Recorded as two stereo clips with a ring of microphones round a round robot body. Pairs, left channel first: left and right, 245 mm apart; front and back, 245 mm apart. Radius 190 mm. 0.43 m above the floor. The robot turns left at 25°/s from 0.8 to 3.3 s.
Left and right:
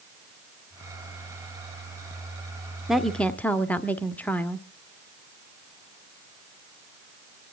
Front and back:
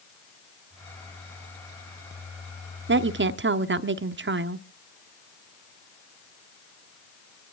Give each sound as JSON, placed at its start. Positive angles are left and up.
{"t": 2.9, "sound": "a woman speaking", "azimuth_deg": 180, "distance_m": 1.0}